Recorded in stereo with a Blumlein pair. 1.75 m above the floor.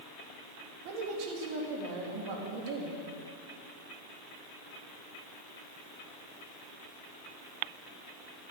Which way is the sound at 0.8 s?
45° right.